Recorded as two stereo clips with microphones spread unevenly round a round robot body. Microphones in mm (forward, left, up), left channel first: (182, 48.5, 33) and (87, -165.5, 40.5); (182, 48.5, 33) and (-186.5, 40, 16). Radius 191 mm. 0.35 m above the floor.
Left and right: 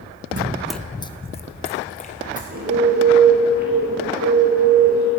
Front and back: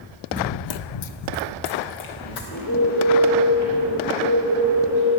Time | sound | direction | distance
0.3 | running footsteps | 95° right | 0.5 m
2.5 | a bird | 65° right | 5.5 m